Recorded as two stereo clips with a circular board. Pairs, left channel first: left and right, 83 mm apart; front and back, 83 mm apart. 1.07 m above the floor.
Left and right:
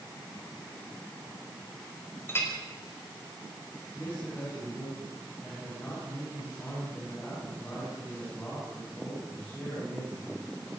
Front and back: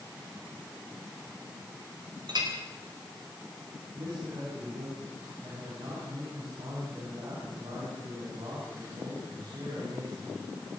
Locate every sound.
2.3 s a clink: 150° left, 4 m
3.9 s a man speaking: 160° left, 9.5 m